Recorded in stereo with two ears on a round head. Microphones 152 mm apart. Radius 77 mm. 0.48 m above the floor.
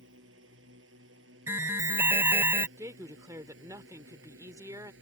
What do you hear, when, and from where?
0.0 s a drone: 85° right; by 5.0 s 80° right
1.5 s an alarm: 15° right (ahead or behind)
2.8 s a woman speaking: 20° right (ahead or behind)